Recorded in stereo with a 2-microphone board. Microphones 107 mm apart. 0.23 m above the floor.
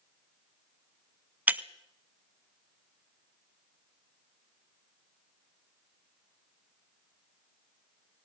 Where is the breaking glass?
15° right (ahead or behind), 0.6 m.